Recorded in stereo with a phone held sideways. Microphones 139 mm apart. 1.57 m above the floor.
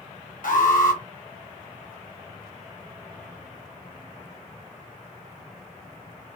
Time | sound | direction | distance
0.4 | an alarm | 75° left (ahead or behind) | 1.5 m